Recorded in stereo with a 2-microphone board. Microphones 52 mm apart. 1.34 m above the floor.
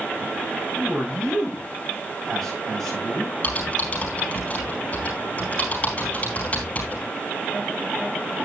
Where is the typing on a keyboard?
35° left (ahead or behind), 4 m.